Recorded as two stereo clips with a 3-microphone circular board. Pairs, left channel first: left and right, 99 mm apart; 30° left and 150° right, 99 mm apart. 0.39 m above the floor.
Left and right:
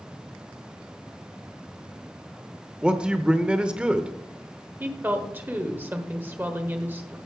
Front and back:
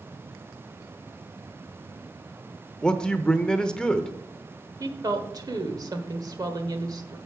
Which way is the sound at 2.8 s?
35° right.